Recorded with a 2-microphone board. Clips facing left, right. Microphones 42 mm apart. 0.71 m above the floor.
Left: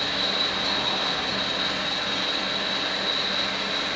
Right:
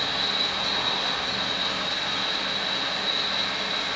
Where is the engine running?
40° left (ahead or behind), 1.2 m.